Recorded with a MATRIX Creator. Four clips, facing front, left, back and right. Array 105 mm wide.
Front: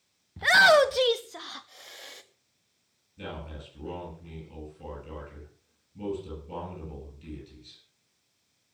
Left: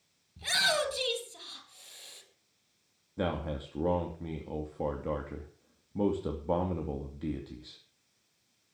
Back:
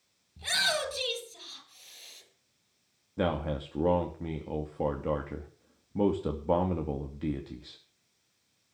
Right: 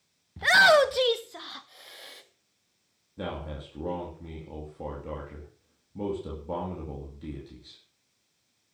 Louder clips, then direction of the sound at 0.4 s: Right 12 dB, front 13 dB; 45° right.